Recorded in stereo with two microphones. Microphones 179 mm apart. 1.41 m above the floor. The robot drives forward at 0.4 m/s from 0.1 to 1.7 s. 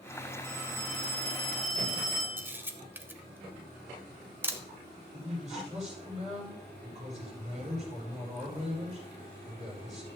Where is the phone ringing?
75° right (ahead or behind), 4 m; by 2.4 s 80° right, 4 m.